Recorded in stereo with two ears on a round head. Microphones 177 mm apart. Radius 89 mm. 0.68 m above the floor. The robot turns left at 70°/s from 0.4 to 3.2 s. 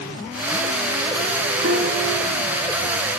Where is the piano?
115° right, 4 m; by 3.0 s 150° left, 4 m.